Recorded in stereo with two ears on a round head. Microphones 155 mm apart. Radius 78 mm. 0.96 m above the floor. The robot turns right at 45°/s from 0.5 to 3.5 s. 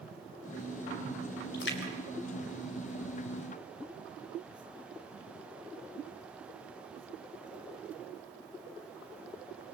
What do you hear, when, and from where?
1.5 s a splash: 60° left (ahead or behind), 4 m; by 3.4 s 35° left (ahead or behind), 4 m